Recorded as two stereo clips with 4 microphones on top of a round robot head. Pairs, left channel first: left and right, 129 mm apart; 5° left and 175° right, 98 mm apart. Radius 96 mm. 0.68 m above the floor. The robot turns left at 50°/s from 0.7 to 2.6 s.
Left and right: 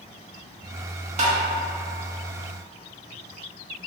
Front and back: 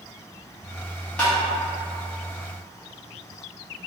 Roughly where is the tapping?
Right.